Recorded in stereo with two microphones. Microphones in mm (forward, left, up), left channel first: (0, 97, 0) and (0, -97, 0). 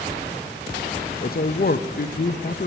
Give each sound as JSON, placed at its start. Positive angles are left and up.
{"t": 1.2, "sound": "a man speaking", "side_deg": 50, "distance_m": 0.5}